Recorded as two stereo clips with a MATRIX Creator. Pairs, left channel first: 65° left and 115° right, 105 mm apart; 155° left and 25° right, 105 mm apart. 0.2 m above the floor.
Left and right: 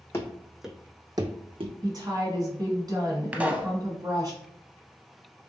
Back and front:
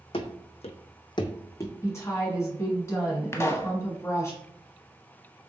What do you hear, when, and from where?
0.1 s running footsteps: 130° left, 0.6 m; by 1.7 s 135° right, 0.7 m
1.8 s a woman speaking: 150° right, 1.6 m
3.3 s a pop: 175° right, 0.6 m